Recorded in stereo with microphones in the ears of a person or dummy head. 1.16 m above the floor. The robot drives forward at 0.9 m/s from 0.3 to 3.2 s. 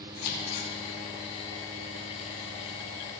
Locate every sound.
0.2 s scissors: 75° left (ahead or behind), 2.5 m; by 0.7 s 80° left, 2.5 m